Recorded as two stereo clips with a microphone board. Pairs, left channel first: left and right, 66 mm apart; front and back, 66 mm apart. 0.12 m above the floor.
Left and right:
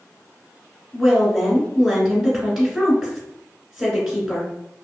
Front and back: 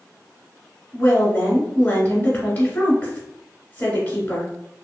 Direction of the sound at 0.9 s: 15° right.